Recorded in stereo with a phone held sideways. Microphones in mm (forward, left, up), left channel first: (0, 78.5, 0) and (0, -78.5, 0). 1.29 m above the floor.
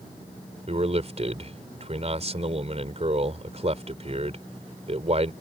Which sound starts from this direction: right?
A man speaking, at 0.7 s.